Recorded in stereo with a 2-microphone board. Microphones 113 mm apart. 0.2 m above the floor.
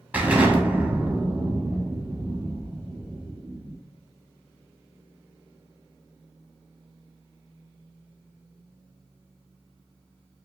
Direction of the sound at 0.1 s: 15° right (ahead or behind).